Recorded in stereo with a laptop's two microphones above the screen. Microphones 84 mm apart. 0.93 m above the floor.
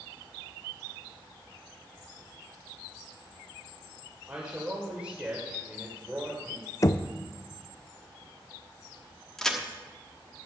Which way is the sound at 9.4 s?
5° left (ahead or behind).